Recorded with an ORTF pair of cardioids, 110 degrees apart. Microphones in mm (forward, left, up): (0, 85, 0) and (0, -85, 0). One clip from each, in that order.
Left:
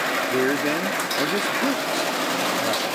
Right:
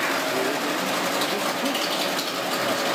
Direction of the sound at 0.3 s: 50° left.